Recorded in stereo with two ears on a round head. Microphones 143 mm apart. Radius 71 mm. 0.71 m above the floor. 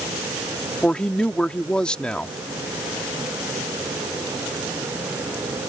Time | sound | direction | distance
0.8 | a woman speaking | 5° left (ahead or behind) | ?